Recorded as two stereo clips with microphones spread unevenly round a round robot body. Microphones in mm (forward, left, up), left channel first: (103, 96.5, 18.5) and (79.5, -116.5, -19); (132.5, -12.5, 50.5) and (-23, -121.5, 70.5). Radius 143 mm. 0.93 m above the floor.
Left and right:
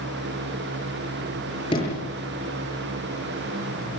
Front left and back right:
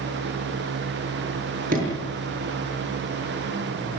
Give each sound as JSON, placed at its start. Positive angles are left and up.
{"t": 1.7, "sound": "a sliding door", "azimuth_deg": 155, "distance_m": 7.5}